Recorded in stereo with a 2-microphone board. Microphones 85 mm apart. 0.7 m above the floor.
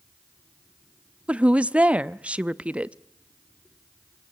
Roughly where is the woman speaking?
Centre.